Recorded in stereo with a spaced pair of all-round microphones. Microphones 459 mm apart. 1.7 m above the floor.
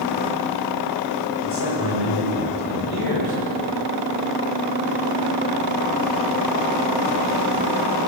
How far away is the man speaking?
About 9.5 m.